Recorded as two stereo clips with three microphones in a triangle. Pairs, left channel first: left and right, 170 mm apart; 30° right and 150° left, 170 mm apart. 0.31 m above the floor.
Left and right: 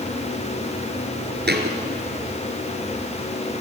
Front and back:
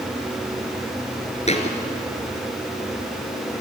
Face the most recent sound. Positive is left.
turn(degrees=-80)